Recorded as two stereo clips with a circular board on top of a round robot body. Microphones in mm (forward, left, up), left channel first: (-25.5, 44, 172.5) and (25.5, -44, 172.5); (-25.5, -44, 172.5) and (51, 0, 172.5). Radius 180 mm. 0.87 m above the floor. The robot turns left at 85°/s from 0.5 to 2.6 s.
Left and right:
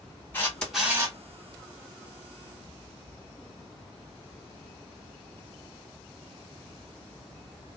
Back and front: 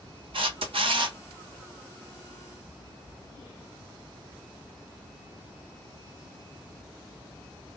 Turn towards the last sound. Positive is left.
turn(degrees=-130)